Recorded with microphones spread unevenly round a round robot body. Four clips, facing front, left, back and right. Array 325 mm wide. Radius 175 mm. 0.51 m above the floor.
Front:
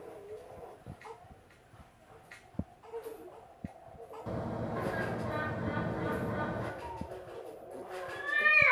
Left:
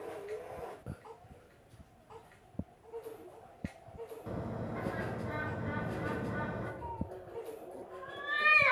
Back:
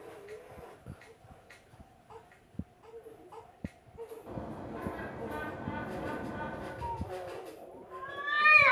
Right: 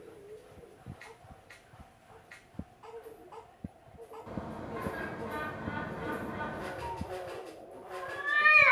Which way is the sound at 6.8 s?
175° right.